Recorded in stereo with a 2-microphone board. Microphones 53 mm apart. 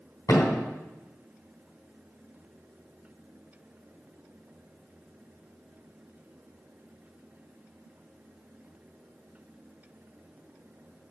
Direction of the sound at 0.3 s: 70° left (ahead or behind).